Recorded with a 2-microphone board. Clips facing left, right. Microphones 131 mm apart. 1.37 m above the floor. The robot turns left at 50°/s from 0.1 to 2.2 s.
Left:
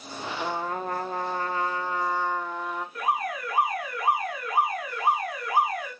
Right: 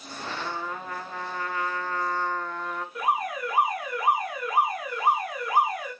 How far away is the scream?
I don't hear a scream.